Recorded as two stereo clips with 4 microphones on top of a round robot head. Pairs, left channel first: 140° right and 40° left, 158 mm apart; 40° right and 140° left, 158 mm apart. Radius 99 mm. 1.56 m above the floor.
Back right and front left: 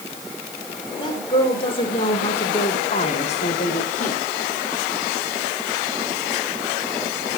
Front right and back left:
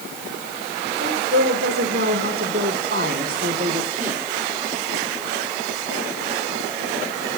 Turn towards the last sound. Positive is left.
turn(degrees=180)